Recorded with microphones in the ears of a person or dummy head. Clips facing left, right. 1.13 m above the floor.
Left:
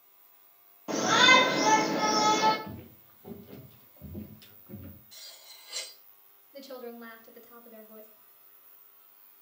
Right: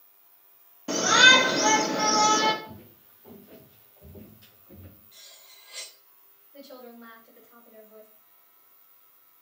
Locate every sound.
0.9 s a shout: 20° right (ahead or behind), 1.1 m
2.6 s footsteps: 45° left (ahead or behind), 1.5 m; by 5.0 s 40° left (ahead or behind), 4 m
5.1 s cutlery clinking: 75° left (ahead or behind), 3.5 m
6.5 s a woman speaking: 55° left (ahead or behind), 1.8 m